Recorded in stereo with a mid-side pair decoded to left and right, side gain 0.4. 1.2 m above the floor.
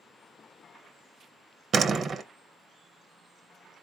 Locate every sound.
1.7 s a door slam: 55° right, 0.6 m